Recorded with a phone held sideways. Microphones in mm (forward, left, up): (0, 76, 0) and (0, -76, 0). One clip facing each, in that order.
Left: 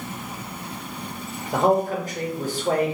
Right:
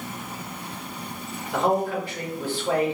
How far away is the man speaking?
About 0.9 m.